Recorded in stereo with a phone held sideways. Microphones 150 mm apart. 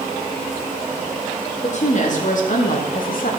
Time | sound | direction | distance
1.6 | a woman speaking | 50° left (ahead or behind) | 2.5 m